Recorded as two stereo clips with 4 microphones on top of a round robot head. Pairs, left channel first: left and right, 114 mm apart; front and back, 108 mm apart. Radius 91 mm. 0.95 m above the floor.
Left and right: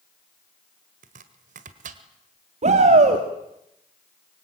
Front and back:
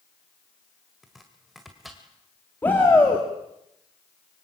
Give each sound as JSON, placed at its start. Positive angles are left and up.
{"t": 1.0, "sound": "chopping", "azimuth_deg": -90, "distance_m": 1.9}
{"t": 2.6, "sound": "a shout", "azimuth_deg": -75, "distance_m": 2.0}